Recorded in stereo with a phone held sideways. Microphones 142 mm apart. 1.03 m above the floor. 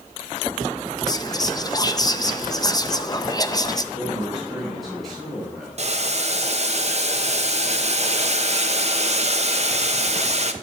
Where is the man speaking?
Centre (ahead or behind), 3.5 m.